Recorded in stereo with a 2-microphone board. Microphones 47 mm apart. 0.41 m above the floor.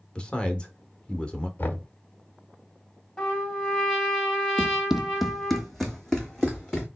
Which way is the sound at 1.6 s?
45° left (ahead or behind).